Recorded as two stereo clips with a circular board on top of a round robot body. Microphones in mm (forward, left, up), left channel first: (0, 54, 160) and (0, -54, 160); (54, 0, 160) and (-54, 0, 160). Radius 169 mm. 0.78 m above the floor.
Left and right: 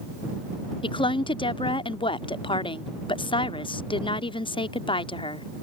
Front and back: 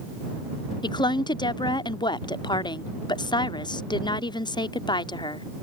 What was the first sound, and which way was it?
A woman speaking, 50° left.